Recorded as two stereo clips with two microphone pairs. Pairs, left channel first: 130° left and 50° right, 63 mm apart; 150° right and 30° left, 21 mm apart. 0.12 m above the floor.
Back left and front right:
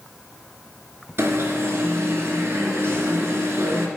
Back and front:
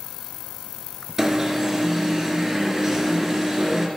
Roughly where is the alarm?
Ahead right.